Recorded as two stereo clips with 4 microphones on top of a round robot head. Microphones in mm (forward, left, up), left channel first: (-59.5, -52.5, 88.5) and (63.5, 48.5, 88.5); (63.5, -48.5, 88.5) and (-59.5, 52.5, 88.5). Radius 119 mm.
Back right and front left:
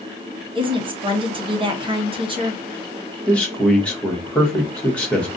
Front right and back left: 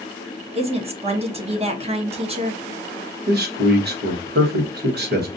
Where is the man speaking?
135° left, 1.3 m.